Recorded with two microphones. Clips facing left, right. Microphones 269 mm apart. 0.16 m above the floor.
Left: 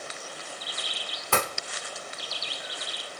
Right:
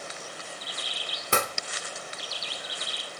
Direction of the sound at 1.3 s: 20° right (ahead or behind).